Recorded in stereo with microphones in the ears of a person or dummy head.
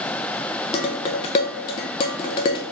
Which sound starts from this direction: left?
Dishes clattering, at 0.7 s.